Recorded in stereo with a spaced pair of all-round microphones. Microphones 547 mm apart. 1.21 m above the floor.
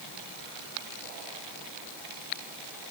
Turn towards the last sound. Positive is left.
No sound to turn to.